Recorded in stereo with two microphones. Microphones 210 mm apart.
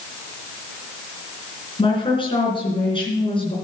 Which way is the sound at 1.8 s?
25° left (ahead or behind).